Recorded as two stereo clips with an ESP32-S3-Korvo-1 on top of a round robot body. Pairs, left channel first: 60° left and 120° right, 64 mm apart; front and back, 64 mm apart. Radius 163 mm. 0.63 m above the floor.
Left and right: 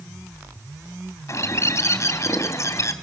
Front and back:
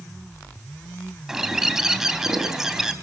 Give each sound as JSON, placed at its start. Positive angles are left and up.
{"t": 1.3, "sound": "a bird", "azimuth_deg": 100, "distance_m": 2.5}